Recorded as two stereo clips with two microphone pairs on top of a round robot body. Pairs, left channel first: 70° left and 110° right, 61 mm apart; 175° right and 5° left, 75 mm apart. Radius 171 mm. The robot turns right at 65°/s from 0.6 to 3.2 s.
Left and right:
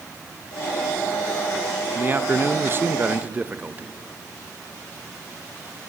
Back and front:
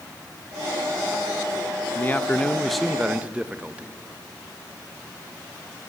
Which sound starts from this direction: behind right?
A man speaking, at 1.9 s.